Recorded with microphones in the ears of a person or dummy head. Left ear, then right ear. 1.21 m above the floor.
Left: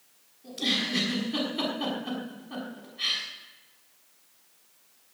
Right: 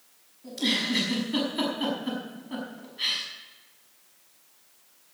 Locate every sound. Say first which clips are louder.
0.4 s a giggle: right 1 dB; 15° right (ahead or behind), 5.5 m